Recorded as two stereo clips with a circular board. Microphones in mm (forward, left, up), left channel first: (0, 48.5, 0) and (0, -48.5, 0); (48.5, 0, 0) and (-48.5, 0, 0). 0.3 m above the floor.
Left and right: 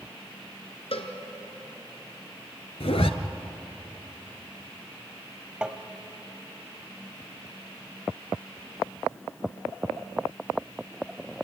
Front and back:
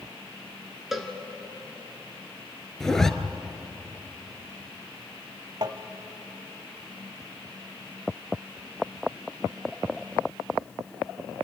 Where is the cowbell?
90° left, 2 m.